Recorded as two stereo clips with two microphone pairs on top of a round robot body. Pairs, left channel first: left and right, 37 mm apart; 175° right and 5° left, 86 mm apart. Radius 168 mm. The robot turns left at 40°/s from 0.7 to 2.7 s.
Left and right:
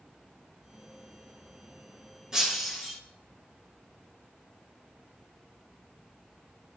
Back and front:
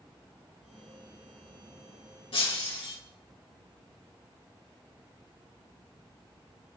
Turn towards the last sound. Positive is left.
turn(degrees=180)